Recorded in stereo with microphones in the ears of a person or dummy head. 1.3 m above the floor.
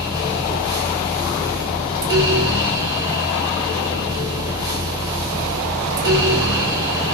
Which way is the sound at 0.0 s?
15° right (ahead or behind).